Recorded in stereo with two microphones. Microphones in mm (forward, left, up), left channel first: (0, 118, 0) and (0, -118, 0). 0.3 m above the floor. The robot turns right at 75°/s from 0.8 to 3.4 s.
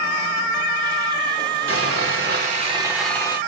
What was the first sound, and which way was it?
Sawing, 100° right.